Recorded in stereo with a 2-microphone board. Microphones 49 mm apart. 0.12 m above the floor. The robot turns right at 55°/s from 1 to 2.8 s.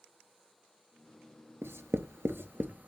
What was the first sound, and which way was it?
Writing, 50° right (ahead or behind).